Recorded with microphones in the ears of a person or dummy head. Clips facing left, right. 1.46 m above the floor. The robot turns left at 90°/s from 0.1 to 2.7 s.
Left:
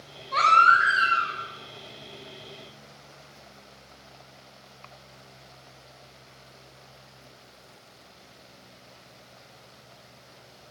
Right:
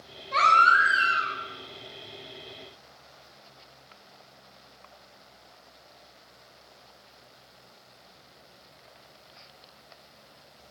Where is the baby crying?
30° right, 6.5 m; by 1.3 s 120° right, 6.5 m.